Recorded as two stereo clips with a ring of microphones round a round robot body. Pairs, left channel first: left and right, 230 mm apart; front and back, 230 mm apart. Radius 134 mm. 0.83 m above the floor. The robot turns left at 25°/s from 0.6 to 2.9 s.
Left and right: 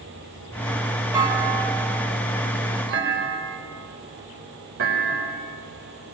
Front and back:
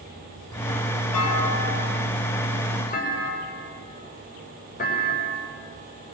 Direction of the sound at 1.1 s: 15° right.